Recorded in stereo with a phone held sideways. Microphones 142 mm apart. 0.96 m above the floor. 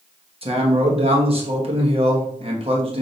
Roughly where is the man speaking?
Right.